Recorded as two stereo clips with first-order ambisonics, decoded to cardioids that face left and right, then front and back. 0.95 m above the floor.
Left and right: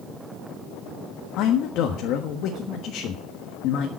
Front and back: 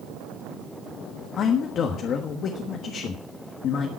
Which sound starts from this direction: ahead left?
A man speaking, at 1.4 s.